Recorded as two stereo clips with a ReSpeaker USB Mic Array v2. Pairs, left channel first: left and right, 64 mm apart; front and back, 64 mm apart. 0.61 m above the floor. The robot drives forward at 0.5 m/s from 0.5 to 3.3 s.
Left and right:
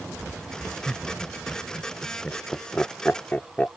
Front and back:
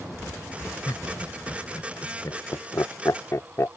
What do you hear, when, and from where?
0.9 s laughter: 10° left; by 3.8 s 30° left